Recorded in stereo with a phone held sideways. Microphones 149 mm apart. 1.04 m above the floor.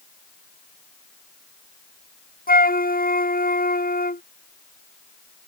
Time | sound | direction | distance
2.5 | a flute | 80° left | ?